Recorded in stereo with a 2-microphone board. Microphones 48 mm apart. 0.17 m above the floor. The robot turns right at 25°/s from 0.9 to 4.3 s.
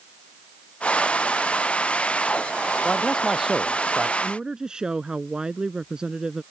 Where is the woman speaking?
20° right (ahead or behind); by 6.4 s 15° right (ahead or behind).